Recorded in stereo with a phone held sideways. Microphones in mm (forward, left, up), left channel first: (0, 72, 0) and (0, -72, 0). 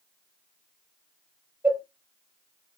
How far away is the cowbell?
About 1.6 m.